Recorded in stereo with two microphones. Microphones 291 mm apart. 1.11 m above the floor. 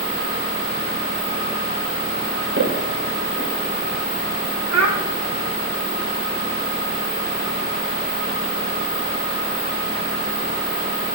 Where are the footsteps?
55° right (ahead or behind), 6.5 m.